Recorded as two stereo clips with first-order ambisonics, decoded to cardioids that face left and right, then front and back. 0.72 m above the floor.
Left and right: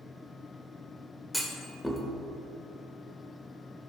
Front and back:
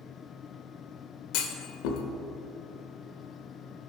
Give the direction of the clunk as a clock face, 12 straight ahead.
12 o'clock.